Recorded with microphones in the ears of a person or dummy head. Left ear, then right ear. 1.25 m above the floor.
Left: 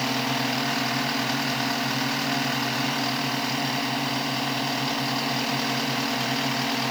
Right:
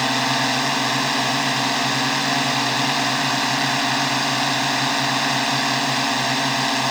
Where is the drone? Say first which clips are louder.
Right 6 dB; 45° right (ahead or behind).